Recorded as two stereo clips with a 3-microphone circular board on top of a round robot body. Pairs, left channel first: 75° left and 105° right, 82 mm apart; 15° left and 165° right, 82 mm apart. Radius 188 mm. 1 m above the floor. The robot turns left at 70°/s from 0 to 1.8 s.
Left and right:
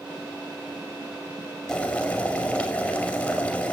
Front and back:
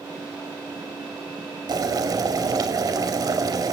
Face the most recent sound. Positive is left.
turn(degrees=155)